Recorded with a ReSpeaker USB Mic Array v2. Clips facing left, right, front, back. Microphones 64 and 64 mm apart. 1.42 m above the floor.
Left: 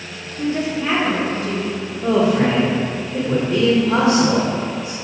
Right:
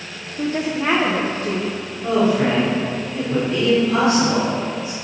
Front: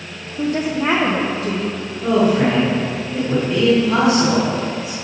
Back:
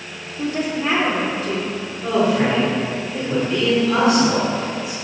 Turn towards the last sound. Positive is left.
turn(degrees=75)